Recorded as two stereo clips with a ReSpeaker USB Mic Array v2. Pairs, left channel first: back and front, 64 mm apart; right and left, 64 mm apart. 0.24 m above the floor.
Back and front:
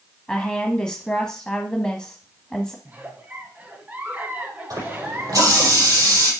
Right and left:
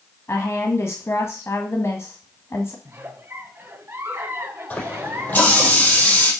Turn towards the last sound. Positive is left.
turn(degrees=-25)